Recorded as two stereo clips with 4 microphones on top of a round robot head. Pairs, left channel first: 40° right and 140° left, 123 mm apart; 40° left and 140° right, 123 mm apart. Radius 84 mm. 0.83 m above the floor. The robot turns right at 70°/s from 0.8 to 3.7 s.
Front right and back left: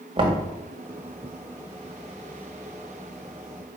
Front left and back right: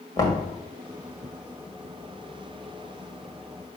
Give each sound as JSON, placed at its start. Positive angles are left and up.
{"t": 0.2, "sound": "knocking", "azimuth_deg": 95, "distance_m": 1.5}